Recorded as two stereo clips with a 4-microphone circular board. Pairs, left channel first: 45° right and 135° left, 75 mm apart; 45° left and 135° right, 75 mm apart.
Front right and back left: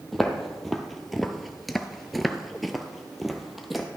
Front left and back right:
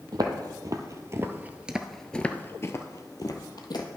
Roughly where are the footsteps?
Behind right.